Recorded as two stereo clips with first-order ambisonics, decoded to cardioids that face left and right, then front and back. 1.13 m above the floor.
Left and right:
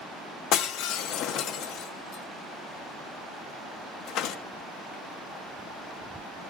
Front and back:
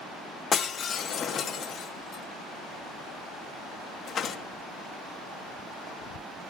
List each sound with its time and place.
0.5 s breaking glass: 65° left, 0.5 m